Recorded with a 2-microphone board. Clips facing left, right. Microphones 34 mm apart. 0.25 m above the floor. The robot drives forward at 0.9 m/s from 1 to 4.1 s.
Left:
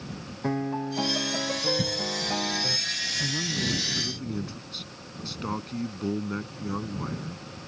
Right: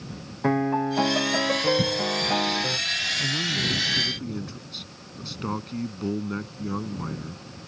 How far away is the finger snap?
No finger snap in this recording.